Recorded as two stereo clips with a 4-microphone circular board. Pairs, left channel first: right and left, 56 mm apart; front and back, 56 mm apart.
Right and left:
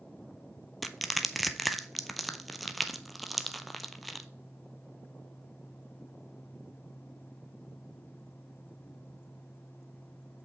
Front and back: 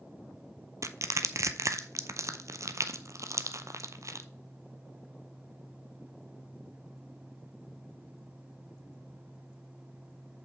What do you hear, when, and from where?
0.8 s crushing: straight behind, 0.6 m